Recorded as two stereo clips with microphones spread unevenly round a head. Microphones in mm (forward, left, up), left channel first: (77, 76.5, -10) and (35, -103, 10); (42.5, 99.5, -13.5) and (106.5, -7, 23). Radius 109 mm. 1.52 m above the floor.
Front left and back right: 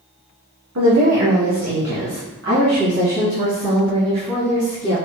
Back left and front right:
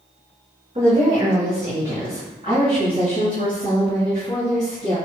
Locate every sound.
0.8 s a woman speaking: 120° right, 0.8 m; by 5.0 s 130° right, 3 m